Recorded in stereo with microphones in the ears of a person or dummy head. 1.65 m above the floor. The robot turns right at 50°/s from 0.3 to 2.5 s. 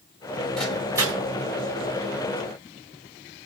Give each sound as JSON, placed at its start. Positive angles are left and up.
{"t": 0.6, "sound": "a microwave", "side_deg": 5, "distance_m": 5.0}